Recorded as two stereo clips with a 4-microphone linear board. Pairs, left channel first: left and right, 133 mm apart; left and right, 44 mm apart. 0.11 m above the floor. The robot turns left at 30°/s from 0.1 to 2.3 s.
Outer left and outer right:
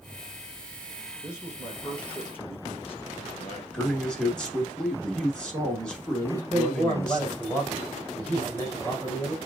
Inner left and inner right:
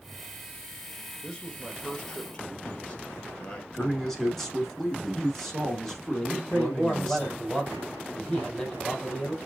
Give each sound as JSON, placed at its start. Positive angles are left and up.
{"t": 1.2, "sound": "a man speaking", "azimuth_deg": -165, "distance_m": 2.0}
{"t": 3.7, "sound": "a man speaking", "side_deg": 5, "distance_m": 1.2}
{"t": 6.2, "sound": "a man speaking", "side_deg": 10, "distance_m": 4.0}